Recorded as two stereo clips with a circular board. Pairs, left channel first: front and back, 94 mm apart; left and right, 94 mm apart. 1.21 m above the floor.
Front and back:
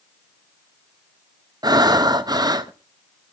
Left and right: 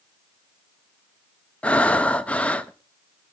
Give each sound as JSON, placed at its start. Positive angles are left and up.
{"t": 1.6, "sound": "breathing", "azimuth_deg": 160, "distance_m": 0.6}